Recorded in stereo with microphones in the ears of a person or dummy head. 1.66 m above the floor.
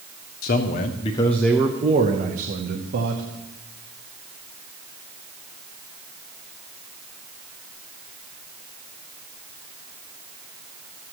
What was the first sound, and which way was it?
A man speaking, 45° left (ahead or behind).